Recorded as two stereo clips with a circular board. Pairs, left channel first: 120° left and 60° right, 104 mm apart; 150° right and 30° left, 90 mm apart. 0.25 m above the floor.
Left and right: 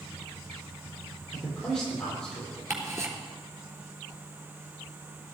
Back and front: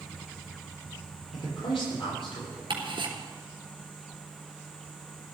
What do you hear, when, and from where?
1.3 s a man speaking: 155° right, 8 m
2.7 s ticking: 5° left, 3.5 m